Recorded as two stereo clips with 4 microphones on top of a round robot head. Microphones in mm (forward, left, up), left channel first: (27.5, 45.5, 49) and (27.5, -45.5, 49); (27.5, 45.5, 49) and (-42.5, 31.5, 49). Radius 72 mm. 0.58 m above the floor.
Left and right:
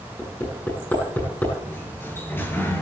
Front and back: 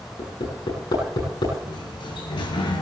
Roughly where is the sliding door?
Ahead left.